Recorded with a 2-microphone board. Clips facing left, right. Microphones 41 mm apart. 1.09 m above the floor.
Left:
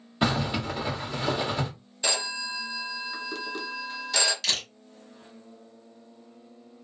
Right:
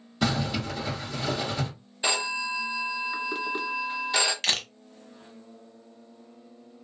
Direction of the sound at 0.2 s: 25° left (ahead or behind).